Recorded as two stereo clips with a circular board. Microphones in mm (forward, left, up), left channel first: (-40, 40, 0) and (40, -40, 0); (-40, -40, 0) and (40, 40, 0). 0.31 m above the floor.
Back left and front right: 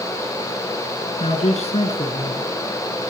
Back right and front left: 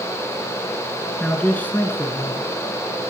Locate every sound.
1.2 s a man speaking: 140° left, 3.5 m; by 2.5 s 170° left, 3.5 m